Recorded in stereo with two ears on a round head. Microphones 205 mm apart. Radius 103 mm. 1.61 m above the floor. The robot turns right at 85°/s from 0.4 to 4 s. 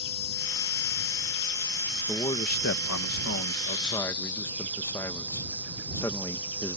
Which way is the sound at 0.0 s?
50° left.